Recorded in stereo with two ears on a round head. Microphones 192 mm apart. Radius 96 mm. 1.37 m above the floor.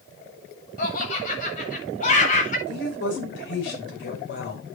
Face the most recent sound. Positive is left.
turn(degrees=60)  # may be behind; listen again after turning